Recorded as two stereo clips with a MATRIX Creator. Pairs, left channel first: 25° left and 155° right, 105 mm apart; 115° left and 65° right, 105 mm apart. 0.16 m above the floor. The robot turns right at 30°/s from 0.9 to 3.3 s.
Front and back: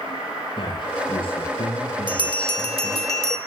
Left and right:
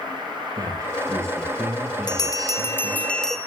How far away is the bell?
About 0.8 m.